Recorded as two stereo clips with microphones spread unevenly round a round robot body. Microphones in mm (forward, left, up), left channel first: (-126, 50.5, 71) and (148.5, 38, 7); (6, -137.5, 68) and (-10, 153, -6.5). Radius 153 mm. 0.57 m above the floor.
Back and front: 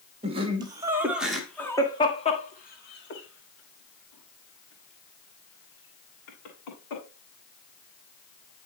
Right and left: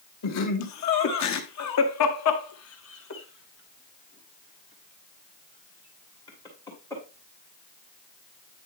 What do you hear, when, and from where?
0.2 s laughter: 55° right, 1.6 m; by 7.0 s 170° right, 3 m